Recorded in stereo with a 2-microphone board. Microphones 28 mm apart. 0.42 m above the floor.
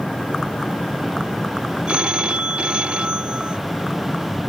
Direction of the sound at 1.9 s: 40° right (ahead or behind).